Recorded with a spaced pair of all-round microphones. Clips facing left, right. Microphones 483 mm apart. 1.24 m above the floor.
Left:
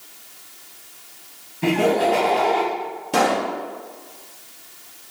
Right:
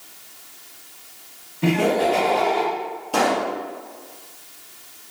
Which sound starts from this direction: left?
A pop, at 3.1 s.